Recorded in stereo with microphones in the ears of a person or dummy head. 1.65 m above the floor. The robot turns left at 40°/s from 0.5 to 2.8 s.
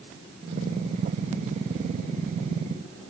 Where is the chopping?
I don't hear chopping.